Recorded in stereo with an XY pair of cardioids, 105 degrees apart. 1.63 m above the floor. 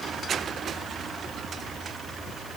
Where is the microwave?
No microwave in this recording.